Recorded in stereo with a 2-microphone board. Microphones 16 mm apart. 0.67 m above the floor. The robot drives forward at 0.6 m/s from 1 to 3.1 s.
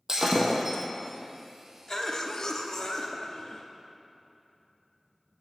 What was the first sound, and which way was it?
Breaking glass, 35° right (ahead or behind).